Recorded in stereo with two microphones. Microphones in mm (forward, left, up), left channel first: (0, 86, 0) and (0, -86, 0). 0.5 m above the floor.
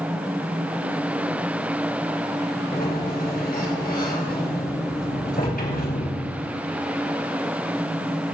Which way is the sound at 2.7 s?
65° left (ahead or behind).